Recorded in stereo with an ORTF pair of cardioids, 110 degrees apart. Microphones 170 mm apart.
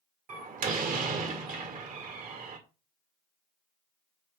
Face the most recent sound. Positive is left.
turn(degrees=-55)